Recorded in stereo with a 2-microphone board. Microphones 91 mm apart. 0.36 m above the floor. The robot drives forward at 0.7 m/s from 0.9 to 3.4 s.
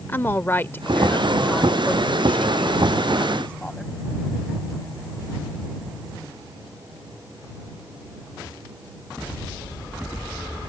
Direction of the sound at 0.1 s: 25° left (ahead or behind).